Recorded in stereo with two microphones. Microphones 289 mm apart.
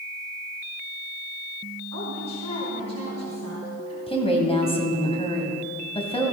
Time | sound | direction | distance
1.9 | a woman speaking | 65° right (ahead or behind) | 3 m
4.1 | a woman speaking | 20° left (ahead or behind) | 2.5 m